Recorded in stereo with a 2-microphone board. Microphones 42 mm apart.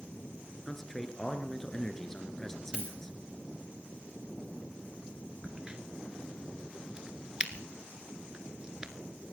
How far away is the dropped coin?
About 4 m.